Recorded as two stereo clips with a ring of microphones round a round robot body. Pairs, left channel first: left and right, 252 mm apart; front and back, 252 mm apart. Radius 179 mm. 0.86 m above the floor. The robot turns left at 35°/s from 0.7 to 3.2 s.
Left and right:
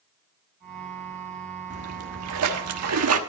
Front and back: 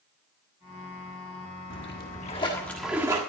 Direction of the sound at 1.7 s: 50° right.